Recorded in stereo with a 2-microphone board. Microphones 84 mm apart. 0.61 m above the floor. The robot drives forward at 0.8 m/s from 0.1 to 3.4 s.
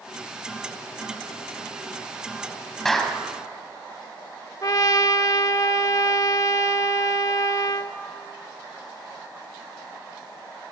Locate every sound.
2.9 s a clap: 5° left (ahead or behind), 3.5 m
4.6 s a trumpet: 45° left (ahead or behind), 1.1 m